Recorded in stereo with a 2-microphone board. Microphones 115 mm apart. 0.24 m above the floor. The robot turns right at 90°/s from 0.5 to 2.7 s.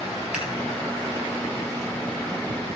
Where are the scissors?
5° right (ahead or behind), 3 m.